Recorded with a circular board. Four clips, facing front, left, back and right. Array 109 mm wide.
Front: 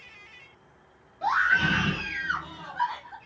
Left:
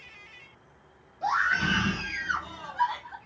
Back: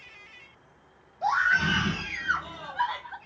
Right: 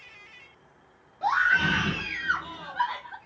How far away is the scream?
About 1.5 m.